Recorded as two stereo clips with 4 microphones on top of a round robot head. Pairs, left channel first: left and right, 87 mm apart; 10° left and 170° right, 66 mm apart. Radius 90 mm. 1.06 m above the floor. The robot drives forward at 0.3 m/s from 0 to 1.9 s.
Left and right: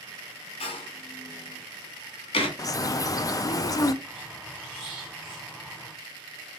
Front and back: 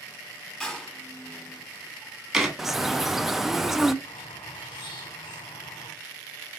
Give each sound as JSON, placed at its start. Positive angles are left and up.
{"t": 0.6, "sound": "a door slam", "azimuth_deg": 90, "distance_m": 1.2}
{"t": 2.6, "sound": "a bird", "azimuth_deg": 110, "distance_m": 0.5}
{"t": 4.0, "sound": "a squeak", "azimuth_deg": -10, "distance_m": 1.6}